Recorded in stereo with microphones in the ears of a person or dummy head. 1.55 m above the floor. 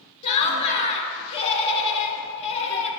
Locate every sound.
0.2 s laughter: 35° left (ahead or behind), 1.2 m